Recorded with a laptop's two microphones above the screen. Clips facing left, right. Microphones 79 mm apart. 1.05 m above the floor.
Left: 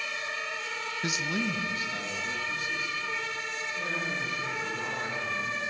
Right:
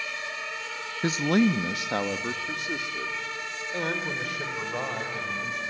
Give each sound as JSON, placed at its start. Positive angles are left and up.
{"t": 1.0, "sound": "a man speaking", "side_deg": -35, "distance_m": 0.6}